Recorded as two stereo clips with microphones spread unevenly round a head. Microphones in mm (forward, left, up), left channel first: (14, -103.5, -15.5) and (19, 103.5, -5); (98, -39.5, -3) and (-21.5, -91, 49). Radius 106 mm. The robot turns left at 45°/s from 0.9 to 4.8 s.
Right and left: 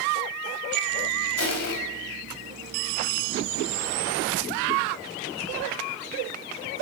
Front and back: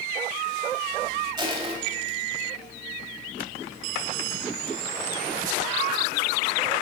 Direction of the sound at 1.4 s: 105° right.